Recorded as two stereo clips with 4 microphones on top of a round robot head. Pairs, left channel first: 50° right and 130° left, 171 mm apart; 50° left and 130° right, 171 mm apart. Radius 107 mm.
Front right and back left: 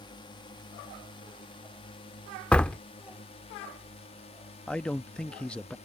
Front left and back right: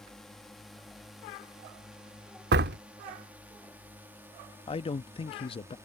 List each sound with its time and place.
0.0 s a drone: 35° right; by 5.9 s 65° right
2.5 s a door slam: 135° right
4.7 s a man speaking: 30° left